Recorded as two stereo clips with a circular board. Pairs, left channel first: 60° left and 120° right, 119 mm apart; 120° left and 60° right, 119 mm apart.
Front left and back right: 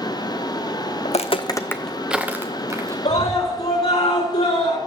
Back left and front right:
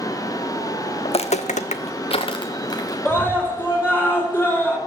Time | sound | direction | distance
1.1 | footsteps | 80° left | 0.7 m
3.0 | a scream | 50° left | 5 m